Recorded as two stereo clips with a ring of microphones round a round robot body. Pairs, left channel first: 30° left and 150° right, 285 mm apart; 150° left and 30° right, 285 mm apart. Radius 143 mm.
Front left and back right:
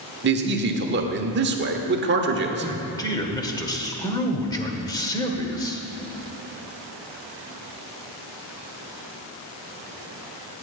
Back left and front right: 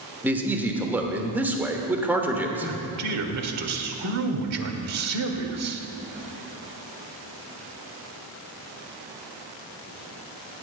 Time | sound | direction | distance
0.2 | a man speaking | 110° right | 1.3 m
2.6 | a man speaking | 45° right | 1.4 m